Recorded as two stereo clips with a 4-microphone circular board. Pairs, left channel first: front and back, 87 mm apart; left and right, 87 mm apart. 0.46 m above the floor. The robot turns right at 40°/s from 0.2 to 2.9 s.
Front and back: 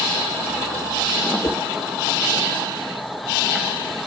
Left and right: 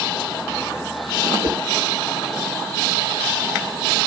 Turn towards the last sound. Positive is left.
turn(degrees=-5)